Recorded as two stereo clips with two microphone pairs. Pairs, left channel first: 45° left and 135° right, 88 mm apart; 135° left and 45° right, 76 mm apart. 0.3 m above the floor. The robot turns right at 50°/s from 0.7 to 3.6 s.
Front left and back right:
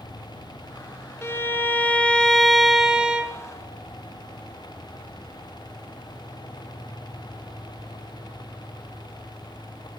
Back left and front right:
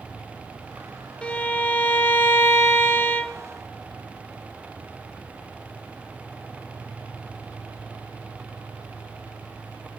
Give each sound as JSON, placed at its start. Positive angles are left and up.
{"t": 1.2, "sound": "a violin", "azimuth_deg": 70, "distance_m": 0.9}